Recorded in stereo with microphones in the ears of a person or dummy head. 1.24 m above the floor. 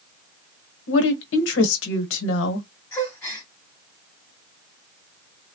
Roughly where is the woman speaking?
Left.